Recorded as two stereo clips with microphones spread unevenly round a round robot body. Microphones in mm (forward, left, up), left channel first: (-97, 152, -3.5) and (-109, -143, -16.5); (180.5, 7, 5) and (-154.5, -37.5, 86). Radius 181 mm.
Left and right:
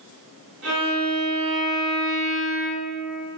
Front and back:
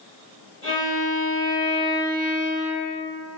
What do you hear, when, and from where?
0.6 s a violin: 85° right, 1.9 m